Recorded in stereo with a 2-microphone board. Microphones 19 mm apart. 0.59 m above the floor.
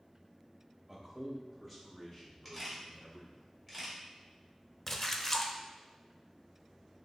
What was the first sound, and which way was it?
A man speaking, 15° right (ahead or behind).